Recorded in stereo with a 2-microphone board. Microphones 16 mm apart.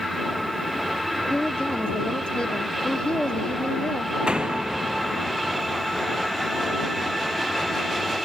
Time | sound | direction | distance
1.3 | a woman speaking | 80° left | ?
4.3 | a door slam | 80° right | ?